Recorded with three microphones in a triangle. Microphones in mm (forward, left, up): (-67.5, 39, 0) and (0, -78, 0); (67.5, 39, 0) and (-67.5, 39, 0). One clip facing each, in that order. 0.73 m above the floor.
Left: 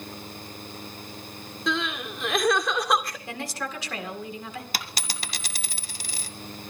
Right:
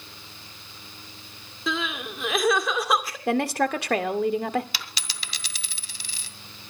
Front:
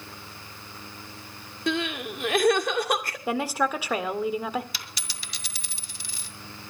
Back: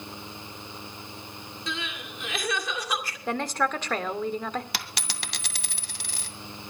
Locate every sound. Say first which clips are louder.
1.7 s crying: left 1 dB, front 10 dB; 25° left, 2.0 m
3.3 s a woman speaking: right 11 dB, front 2 dB; 80° right, 1.9 m
4.7 s a dropped coin: left 4 dB, back 6 dB; 165° left, 1.8 m